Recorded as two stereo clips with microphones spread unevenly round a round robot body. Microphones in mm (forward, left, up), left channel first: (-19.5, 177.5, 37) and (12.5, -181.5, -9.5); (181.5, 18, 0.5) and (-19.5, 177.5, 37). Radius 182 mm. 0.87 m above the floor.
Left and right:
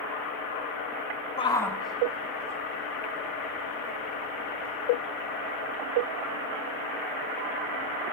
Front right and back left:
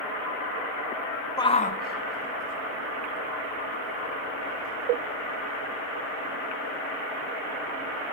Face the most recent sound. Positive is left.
turn(degrees=-10)